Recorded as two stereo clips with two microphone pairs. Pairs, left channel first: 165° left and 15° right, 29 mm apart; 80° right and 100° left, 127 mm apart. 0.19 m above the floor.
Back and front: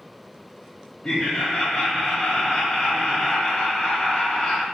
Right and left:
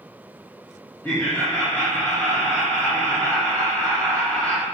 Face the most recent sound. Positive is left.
turn(degrees=-130)